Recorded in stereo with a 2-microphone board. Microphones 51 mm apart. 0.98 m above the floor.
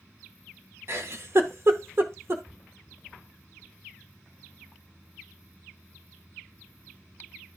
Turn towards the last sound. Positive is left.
turn(degrees=-50)  # may be behind; listen again after turning